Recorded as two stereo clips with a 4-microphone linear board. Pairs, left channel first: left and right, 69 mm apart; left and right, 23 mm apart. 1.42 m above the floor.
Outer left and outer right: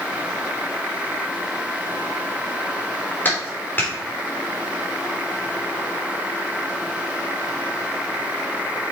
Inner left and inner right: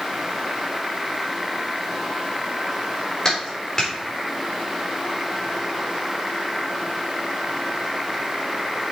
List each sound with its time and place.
3.2 s a clap: 30° left (ahead or behind), 3 m